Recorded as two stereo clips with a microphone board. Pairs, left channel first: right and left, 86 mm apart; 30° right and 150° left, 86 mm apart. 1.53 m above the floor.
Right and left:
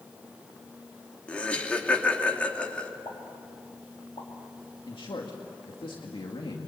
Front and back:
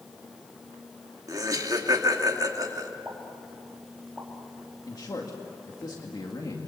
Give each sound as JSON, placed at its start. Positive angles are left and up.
{"t": 1.3, "sound": "laughter", "azimuth_deg": -165, "distance_m": 2.5}
{"t": 3.0, "sound": "a pop", "azimuth_deg": -115, "distance_m": 3.5}
{"t": 4.9, "sound": "a man speaking", "azimuth_deg": -70, "distance_m": 2.0}